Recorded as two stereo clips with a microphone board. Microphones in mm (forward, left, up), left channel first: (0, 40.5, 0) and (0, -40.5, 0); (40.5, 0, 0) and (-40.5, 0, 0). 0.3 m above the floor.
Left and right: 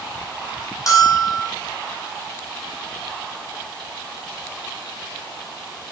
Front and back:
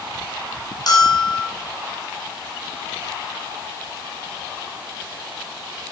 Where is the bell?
40° left, 2.5 m.